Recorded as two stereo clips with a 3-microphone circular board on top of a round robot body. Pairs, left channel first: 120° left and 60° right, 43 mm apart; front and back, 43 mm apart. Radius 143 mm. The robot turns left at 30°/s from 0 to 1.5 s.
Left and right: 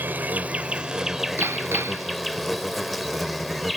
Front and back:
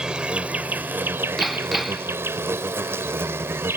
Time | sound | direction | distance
0.0 | an insect | 105° right | ?
1.4 | hammering | 85° right | ?